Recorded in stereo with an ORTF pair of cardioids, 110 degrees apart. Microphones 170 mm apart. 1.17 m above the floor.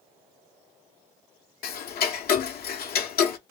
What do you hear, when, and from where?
1.6 s ticking: 60° left, 1.0 m